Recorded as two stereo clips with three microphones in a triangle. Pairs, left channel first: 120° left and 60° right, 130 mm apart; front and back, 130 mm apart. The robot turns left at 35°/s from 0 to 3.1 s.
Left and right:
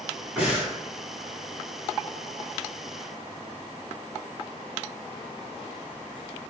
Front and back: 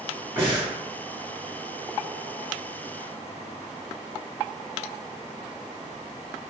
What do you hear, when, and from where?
0.4 s breathing: 125° right, 1.4 m; by 0.7 s 140° right, 1.4 m